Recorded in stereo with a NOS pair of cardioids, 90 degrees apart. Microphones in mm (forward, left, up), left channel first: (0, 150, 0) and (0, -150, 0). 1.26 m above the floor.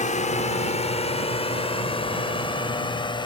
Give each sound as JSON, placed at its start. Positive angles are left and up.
{"t": 0.0, "sound": "a drone", "azimuth_deg": 25}